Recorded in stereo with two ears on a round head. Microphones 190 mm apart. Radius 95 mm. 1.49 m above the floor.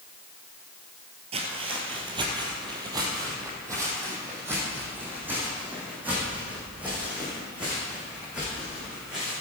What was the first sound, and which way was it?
Footsteps, 30° right (ahead or behind).